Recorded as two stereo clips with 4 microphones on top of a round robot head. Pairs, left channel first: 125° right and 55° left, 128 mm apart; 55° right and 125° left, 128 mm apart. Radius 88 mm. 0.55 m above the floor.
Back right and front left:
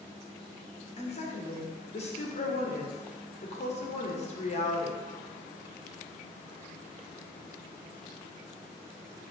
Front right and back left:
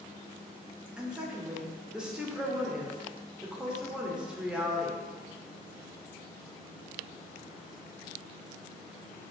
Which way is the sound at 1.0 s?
150° right.